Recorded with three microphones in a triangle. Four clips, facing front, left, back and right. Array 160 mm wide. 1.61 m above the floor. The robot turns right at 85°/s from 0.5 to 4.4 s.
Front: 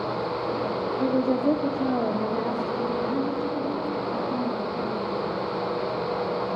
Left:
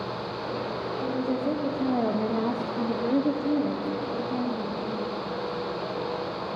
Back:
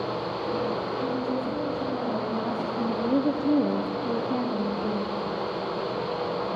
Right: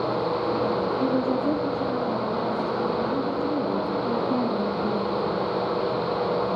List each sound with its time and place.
1.0 s a woman speaking: 45° right, 0.9 m; by 5.1 s 115° right, 0.9 m